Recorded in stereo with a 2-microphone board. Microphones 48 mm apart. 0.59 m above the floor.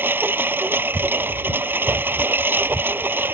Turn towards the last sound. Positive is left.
turn(degrees=-50)  # may be behind; listen again after turning